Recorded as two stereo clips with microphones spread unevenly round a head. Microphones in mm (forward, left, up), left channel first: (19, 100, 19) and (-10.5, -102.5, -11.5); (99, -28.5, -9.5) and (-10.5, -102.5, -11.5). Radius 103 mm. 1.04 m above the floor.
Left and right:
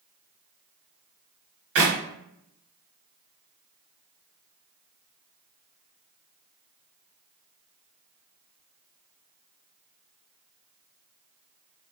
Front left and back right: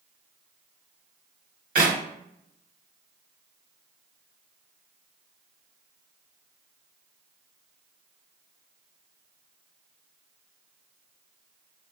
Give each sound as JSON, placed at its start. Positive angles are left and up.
{"t": 1.8, "sound": "a clap", "azimuth_deg": -130, "distance_m": 0.9}